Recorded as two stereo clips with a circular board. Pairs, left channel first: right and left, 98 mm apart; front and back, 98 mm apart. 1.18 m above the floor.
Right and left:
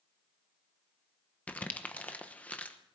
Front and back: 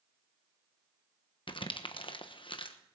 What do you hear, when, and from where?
1.5 s crumpling: 15° right, 1.0 m